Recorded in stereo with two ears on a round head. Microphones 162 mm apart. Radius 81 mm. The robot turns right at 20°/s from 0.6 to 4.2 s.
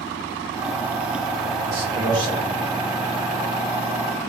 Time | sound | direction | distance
1.6 | a man speaking | 15° right (ahead or behind) | 1.4 m